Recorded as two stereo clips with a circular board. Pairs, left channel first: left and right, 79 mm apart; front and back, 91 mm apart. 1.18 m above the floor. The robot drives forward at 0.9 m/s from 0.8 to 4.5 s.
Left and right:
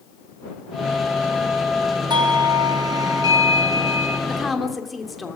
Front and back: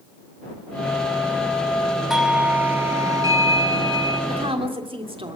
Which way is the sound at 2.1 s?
95° right.